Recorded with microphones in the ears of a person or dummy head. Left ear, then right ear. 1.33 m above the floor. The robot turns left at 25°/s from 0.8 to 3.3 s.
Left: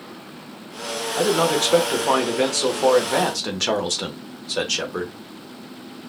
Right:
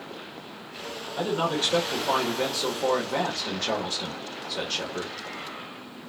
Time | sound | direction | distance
1.2 | a man speaking | 145° left | 1.0 m